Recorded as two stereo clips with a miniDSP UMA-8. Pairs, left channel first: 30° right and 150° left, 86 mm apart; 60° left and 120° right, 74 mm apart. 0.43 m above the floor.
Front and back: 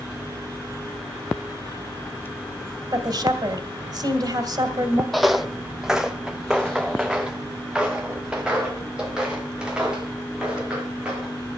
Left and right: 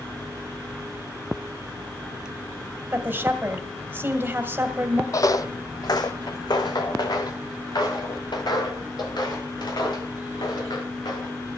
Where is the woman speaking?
Straight behind, 1.9 m.